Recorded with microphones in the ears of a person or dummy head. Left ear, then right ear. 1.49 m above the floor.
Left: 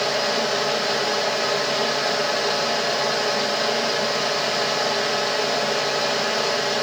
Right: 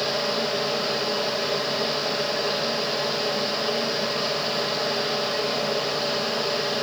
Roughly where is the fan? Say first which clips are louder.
Left 3 dB; left.